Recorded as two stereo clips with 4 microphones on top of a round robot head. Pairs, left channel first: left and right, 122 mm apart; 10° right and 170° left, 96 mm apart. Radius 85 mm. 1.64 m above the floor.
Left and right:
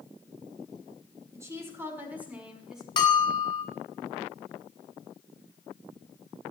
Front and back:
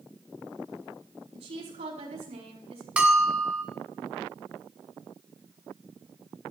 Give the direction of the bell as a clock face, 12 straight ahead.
9 o'clock.